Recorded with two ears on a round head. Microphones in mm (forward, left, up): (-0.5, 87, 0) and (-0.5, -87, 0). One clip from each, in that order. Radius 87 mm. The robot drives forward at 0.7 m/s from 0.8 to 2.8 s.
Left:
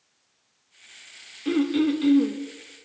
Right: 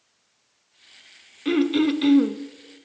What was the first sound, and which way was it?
Throat clearing, 20° right (ahead or behind).